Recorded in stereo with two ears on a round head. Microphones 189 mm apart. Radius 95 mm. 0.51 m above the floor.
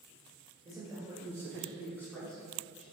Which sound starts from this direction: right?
A man speaking, at 0.7 s.